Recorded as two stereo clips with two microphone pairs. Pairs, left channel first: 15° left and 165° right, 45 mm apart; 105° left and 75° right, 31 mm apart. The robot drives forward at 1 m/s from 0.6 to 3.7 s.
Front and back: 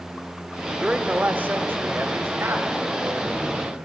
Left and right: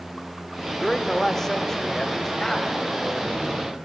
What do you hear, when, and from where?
0.8 s a man speaking: straight behind, 1.1 m